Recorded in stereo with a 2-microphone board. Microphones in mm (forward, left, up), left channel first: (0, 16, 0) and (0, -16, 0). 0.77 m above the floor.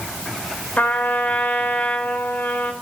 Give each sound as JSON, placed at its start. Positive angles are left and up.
{"t": 0.8, "sound": "a trumpet", "side_deg": 60, "distance_m": 1.6}